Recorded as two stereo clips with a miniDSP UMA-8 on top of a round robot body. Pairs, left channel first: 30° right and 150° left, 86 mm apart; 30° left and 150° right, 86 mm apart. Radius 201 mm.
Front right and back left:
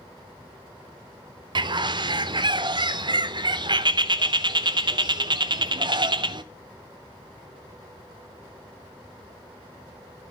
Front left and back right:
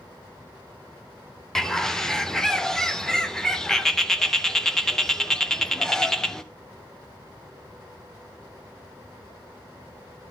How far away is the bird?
About 0.7 m.